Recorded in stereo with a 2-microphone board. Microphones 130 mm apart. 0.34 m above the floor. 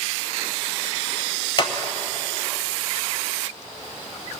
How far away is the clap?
About 1.0 m.